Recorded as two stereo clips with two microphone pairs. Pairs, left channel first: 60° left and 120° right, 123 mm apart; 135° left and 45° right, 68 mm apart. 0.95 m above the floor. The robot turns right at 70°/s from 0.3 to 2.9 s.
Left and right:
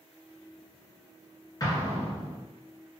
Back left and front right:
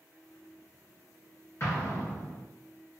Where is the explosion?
110° left, 1.5 m; by 2.4 s 165° left, 1.5 m.